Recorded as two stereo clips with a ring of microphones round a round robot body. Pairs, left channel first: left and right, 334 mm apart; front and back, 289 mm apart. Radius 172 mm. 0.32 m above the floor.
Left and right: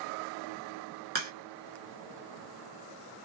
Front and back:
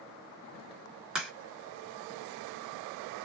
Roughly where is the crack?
Right.